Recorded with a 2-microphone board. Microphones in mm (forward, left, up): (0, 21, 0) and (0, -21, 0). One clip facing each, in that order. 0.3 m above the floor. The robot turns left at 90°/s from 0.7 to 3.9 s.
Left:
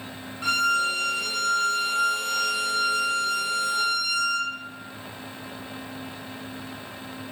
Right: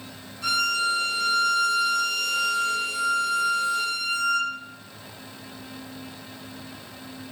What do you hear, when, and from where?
0.4 s a violin: 135° left, 0.8 m; by 4.5 s 155° right, 0.8 m